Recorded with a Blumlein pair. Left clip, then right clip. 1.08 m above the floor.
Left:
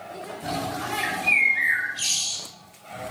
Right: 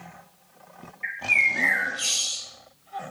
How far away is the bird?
About 1.0 m.